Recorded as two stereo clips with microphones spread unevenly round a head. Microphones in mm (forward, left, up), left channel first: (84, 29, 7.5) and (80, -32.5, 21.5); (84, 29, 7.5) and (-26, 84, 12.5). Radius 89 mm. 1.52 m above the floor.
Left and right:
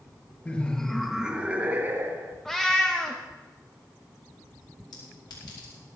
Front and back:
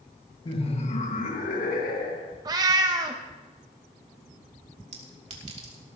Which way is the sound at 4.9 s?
125° left.